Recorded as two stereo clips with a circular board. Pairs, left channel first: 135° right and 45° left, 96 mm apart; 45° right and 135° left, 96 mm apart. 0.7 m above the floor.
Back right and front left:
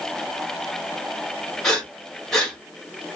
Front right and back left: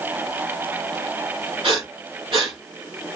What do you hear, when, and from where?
1.6 s breathing: 140° left, 2.5 m